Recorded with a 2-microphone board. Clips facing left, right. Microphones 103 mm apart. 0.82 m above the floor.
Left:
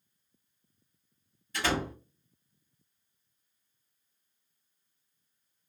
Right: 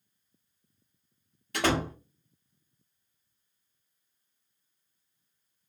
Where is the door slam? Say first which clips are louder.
Right 4 dB; 65° right (ahead or behind), 1.1 m.